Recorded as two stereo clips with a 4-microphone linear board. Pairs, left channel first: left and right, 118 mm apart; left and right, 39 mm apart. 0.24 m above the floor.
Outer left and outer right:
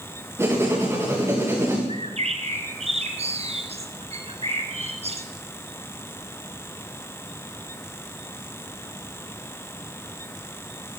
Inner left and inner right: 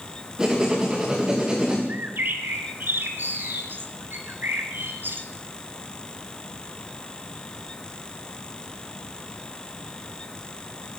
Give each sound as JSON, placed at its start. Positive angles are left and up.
{"t": 0.4, "sound": "writing", "side_deg": -20, "distance_m": 6.5}
{"t": 1.9, "sound": "a bird", "side_deg": -60, "distance_m": 2.5}